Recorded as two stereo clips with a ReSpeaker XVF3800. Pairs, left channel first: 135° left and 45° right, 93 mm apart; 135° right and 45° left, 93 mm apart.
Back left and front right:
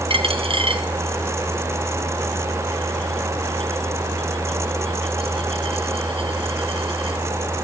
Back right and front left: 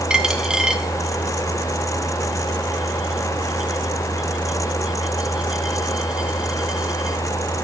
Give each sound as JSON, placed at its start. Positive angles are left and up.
{"t": 0.1, "sound": "a dropped coin", "azimuth_deg": -35, "distance_m": 2.0}